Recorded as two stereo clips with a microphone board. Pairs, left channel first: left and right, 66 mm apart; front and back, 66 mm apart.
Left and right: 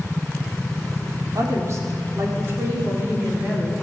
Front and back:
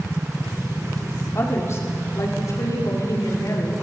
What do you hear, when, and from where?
1.4 s a woman speaking: 50° right, 5 m; by 3.7 s 30° right, 6 m